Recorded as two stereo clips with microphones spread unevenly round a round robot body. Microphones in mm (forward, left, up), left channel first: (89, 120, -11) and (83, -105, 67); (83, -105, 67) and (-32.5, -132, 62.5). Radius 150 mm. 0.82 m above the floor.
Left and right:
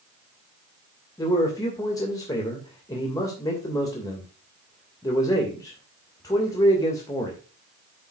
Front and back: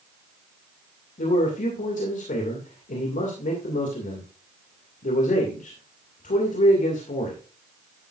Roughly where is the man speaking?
Ahead.